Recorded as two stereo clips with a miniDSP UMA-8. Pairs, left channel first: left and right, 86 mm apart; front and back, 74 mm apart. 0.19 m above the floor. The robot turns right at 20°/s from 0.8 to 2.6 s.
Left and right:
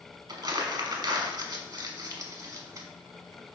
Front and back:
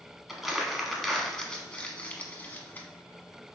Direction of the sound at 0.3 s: 90° right.